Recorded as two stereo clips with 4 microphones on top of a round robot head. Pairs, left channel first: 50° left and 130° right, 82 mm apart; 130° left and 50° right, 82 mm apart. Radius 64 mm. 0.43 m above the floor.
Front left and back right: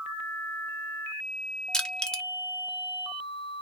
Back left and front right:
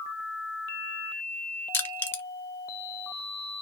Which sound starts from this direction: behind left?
Crushing, at 1.7 s.